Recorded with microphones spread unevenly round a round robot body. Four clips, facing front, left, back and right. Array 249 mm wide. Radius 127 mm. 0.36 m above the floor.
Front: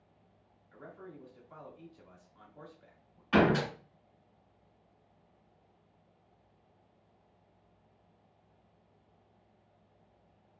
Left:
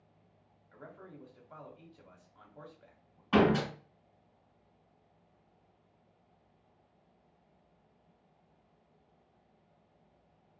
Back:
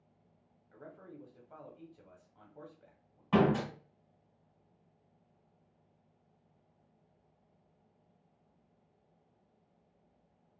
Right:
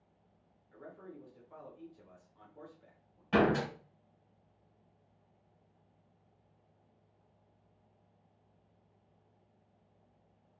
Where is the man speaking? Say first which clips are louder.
Right 1 dB, front 2 dB; 150° left, 1.0 m.